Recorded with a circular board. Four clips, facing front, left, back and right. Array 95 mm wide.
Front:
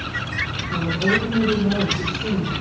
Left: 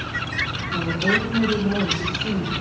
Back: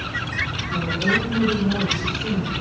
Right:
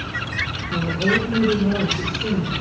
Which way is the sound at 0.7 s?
80° right.